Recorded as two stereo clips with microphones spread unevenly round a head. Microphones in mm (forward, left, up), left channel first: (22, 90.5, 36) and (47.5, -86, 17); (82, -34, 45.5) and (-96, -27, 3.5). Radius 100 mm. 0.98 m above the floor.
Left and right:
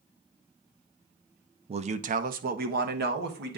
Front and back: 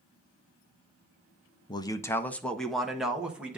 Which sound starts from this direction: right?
A man speaking, at 1.7 s.